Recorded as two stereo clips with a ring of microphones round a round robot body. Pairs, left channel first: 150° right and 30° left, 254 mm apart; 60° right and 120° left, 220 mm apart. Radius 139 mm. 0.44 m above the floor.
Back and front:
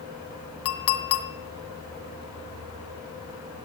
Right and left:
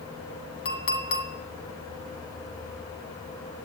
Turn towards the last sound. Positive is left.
turn(degrees=-115)